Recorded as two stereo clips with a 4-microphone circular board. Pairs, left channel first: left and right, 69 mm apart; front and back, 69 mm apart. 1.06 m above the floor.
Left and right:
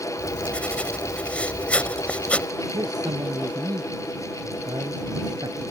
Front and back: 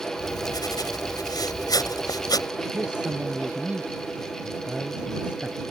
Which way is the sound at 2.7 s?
105° right.